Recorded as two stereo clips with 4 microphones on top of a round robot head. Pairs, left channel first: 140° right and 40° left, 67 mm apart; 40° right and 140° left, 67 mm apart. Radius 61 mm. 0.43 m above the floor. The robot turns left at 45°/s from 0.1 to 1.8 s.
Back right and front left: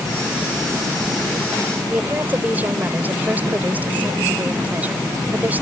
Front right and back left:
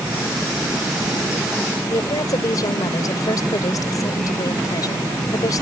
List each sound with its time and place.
1.9 s a woman speaking: 20° right